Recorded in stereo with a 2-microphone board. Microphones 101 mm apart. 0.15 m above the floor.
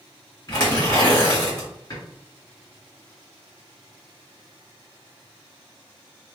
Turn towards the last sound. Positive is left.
turn(degrees=40)  # may be behind; listen again after turning